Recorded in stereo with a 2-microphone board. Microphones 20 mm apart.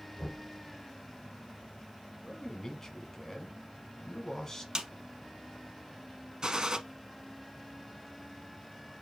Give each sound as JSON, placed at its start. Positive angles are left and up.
{"t": 0.2, "sound": "knocking", "side_deg": 45, "distance_m": 1.2}
{"t": 2.2, "sound": "a man speaking", "side_deg": 25, "distance_m": 1.3}
{"t": 4.8, "sound": "a snare drum", "side_deg": -40, "distance_m": 0.8}
{"t": 6.4, "sound": "a gunshot", "side_deg": -45, "distance_m": 0.8}